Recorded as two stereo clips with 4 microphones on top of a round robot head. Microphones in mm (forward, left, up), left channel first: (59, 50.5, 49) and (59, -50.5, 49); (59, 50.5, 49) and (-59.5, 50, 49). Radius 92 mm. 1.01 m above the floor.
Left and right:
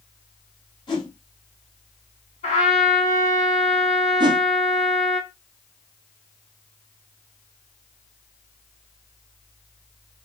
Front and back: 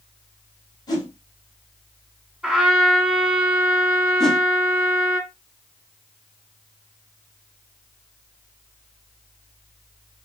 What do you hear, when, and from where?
0.9 s a whoosh: 55° left, 2 m
2.4 s a trumpet: 95° left, 2.5 m
4.2 s a whoosh: 85° right, 0.6 m